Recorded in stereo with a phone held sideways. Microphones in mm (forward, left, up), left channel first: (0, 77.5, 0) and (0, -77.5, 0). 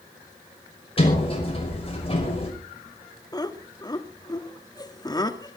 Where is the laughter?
25° left (ahead or behind), 1.6 m.